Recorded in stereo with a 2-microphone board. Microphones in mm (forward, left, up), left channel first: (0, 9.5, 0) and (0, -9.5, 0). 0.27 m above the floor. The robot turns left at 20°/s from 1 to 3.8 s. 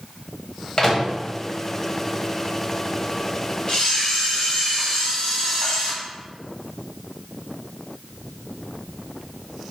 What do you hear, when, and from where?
0.8 s a microwave: 30° left (ahead or behind), 0.8 m
3.7 s a camera shutter: 40° left (ahead or behind), 0.7 m; by 5.9 s 45° left (ahead or behind), 0.7 m